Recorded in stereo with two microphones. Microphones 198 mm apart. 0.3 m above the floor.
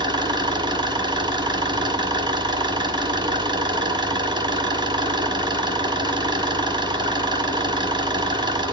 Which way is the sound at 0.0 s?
20° right (ahead or behind).